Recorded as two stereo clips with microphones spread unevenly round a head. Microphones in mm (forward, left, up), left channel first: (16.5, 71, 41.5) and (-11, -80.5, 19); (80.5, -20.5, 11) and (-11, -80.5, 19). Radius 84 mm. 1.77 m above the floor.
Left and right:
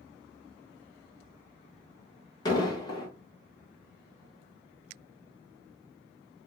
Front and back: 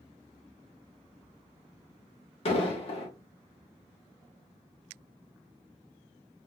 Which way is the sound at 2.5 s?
25° left.